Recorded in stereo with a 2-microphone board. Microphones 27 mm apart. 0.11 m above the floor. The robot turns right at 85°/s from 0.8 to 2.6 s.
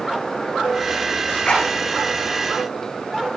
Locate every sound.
1.3 s a zipper: 65° left (ahead or behind), 6.5 m; by 1.7 s 30° left (ahead or behind), 6.5 m